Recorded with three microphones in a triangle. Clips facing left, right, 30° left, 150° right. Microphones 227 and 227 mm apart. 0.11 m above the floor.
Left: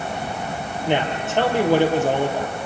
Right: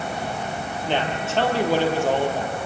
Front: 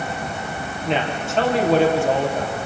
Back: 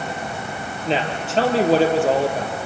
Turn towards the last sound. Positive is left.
turn(degrees=160)